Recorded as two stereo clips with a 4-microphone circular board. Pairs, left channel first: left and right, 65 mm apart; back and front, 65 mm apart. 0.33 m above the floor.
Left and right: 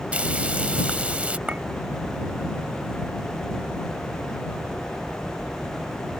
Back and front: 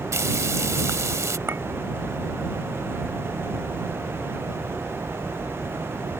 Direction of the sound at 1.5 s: 30° right.